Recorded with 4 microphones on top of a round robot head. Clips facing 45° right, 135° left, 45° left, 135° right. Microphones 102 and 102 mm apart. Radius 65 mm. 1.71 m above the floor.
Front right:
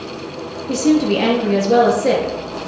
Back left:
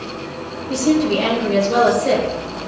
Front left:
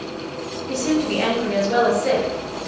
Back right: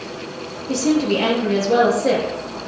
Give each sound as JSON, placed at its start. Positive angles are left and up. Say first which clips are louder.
{"t": 0.7, "sound": "a woman speaking", "louder": "front right 2 dB, back right 3 dB", "azimuth_deg": -75, "distance_m": 4.0}